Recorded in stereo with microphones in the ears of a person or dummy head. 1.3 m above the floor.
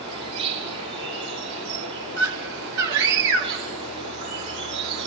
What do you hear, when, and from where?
0.0 s an insect: 30° right (ahead or behind), 7.5 m
2.2 s a scream: 60° right (ahead or behind), 1.5 m